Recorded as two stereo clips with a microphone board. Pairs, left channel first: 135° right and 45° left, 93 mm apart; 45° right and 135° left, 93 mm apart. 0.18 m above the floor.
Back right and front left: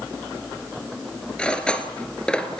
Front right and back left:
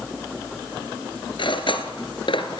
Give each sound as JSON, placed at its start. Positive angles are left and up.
{"t": 1.4, "sound": "cutlery clinking", "azimuth_deg": -55, "distance_m": 1.9}